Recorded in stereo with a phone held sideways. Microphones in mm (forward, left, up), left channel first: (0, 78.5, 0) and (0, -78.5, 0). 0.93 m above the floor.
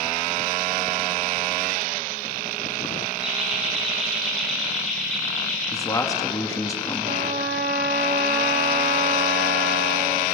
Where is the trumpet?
70° right (ahead or behind), 1.1 m.